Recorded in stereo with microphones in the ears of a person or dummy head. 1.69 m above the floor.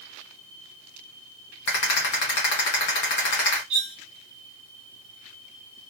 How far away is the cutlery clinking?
About 1.2 m.